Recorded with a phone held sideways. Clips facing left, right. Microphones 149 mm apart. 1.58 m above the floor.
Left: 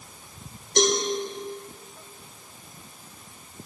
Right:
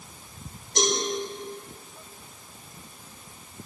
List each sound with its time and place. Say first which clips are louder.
0.8 s a cowbell: left 4 dB; 75° left (ahead or behind), 1.5 m